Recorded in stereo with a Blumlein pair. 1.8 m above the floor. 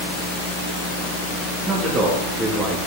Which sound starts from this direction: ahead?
A man speaking, at 1.7 s.